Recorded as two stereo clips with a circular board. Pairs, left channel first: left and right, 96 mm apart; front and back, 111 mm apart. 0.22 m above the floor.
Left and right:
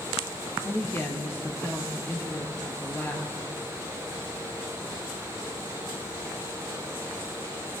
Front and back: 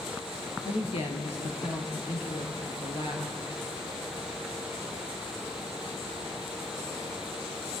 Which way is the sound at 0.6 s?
25° left.